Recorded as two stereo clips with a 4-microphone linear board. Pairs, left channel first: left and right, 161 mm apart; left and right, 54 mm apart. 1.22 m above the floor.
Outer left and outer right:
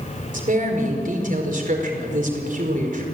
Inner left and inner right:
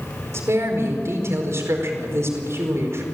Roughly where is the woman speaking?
Right.